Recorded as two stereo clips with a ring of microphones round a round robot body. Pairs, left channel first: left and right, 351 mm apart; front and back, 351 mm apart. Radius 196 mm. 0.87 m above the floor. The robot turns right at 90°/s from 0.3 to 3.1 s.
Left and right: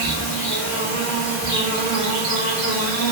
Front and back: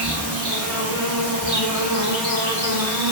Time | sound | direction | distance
0.0 | an insect | 95° left | 1.7 m